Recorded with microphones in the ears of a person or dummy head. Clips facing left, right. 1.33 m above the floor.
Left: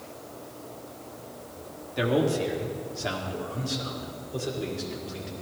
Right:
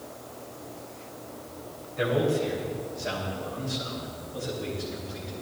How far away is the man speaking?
About 3 m.